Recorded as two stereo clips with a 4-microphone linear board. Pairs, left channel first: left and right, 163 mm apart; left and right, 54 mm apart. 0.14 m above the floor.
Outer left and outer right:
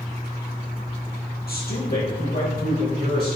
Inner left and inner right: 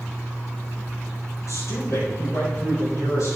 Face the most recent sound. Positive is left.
turn(degrees=75)  # may be behind; listen again after turning